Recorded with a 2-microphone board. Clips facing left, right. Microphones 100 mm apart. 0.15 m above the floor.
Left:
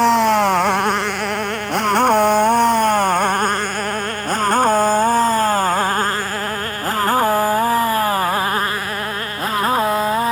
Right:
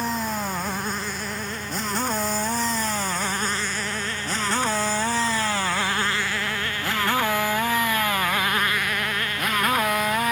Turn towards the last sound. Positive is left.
turn(degrees=30)  # may be behind; listen again after turning